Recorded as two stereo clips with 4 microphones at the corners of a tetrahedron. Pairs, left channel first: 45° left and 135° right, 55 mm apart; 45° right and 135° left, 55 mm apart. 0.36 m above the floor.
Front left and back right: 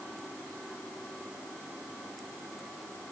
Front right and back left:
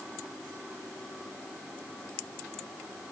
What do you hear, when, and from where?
Only background noise.